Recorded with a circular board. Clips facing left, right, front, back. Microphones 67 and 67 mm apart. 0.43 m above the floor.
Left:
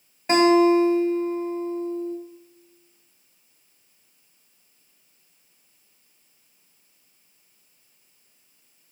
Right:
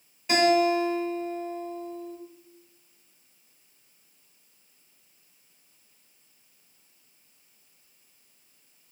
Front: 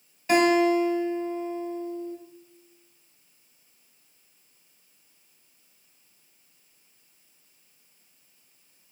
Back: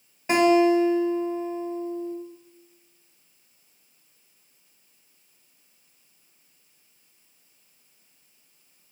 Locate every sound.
0.3 s a guitar: 125° left, 1.0 m